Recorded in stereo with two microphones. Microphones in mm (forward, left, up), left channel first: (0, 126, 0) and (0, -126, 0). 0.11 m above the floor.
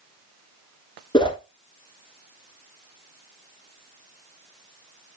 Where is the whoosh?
20° left (ahead or behind), 0.8 m.